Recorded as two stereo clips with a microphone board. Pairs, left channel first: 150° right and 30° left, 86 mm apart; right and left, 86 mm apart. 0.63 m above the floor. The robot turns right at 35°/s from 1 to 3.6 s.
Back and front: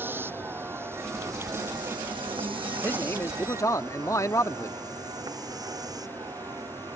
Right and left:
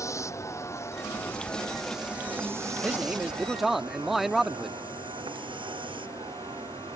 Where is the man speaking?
150° left; by 4.8 s 175° left.